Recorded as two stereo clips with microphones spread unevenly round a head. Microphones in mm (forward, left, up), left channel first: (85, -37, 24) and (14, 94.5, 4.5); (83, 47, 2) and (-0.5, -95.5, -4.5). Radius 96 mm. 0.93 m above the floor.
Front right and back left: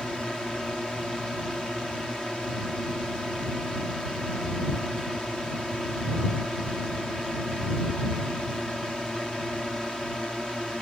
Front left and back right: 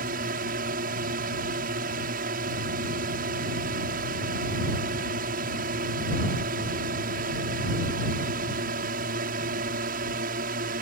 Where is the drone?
150° right.